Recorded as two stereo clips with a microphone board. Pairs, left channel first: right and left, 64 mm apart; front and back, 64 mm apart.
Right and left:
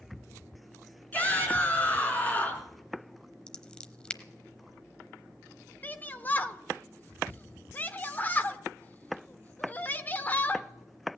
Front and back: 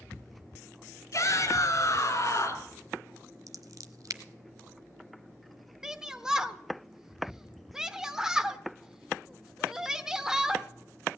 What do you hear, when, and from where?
1.1 s a shout: 30° right, 4 m
3.5 s scissors: 165° right, 0.8 m
5.8 s a shout: 110° right, 0.9 m